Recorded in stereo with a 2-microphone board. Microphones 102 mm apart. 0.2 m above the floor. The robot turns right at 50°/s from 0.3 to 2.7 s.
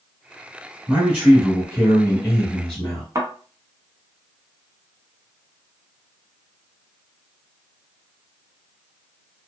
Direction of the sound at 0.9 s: 20° right (ahead or behind).